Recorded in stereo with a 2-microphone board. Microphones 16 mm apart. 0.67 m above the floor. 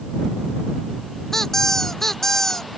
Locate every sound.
1.3 s a squeak: 30° left (ahead or behind)